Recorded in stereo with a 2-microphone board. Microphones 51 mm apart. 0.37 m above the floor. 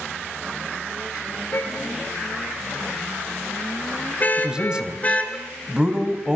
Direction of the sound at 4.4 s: 15° right (ahead or behind).